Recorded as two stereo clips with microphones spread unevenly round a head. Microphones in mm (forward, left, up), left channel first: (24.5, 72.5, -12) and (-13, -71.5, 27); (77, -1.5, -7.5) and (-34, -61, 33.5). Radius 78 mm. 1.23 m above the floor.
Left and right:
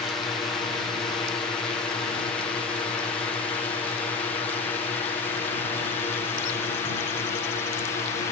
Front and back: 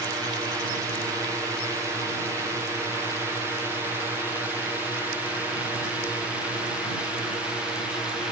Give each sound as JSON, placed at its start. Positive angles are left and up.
{"t": 0.0, "sound": "a drone", "azimuth_deg": 135}